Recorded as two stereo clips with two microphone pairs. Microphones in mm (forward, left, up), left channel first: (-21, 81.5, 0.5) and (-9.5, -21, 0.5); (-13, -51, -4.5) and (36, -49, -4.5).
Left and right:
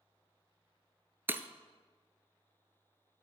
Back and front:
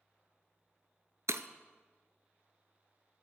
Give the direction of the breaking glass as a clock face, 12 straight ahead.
12 o'clock.